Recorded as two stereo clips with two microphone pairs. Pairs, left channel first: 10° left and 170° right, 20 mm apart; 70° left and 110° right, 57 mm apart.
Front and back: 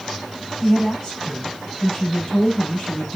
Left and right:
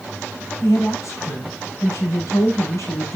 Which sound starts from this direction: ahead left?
A woman speaking, at 0.6 s.